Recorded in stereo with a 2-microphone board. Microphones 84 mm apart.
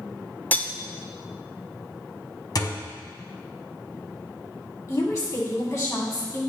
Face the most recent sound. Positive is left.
turn(degrees=45)  # may be behind; listen again after turning